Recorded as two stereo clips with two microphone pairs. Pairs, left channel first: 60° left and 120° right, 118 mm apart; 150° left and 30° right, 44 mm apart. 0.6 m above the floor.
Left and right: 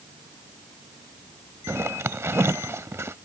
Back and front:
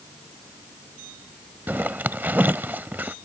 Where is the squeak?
No squeak in this recording.